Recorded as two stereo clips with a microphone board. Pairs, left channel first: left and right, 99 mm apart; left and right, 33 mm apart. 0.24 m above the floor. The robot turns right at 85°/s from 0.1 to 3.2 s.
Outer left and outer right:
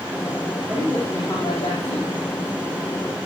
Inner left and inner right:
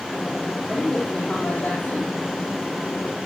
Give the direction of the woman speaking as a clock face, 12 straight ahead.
12 o'clock.